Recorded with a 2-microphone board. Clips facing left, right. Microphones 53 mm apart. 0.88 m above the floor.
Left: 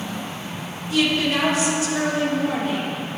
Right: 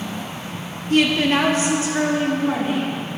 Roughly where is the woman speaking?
Right.